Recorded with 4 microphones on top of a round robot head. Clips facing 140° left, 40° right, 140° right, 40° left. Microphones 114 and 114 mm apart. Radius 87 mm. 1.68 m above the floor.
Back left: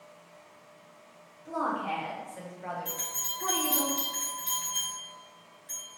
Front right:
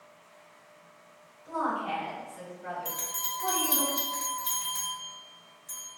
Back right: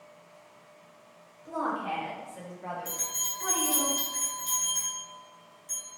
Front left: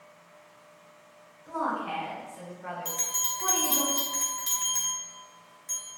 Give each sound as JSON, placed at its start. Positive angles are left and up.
{"t": 1.4, "sound": "a woman speaking", "azimuth_deg": -165, "distance_m": 1.4}
{"t": 2.9, "sound": "a bell", "azimuth_deg": 10, "distance_m": 0.9}